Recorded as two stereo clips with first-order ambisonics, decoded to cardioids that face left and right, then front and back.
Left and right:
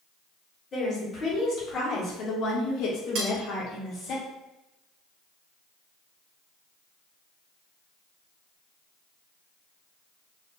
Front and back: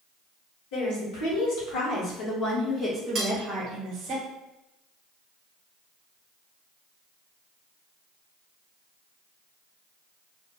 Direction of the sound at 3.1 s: 120° right.